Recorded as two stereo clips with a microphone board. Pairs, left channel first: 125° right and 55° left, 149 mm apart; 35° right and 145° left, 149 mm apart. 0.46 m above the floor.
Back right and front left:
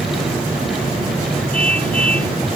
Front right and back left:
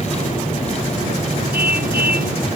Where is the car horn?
155° left.